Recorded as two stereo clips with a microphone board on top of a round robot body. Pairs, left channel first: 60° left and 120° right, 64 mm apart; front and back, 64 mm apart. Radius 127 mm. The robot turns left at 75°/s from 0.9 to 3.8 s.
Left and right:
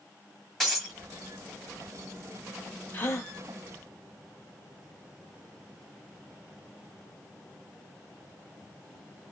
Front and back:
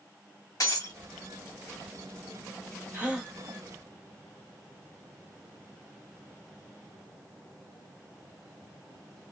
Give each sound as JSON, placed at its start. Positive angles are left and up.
{"t": 0.6, "sound": "breaking glass", "azimuth_deg": -30, "distance_m": 2.5}
{"t": 2.9, "sound": "a gasp", "azimuth_deg": 120, "distance_m": 1.2}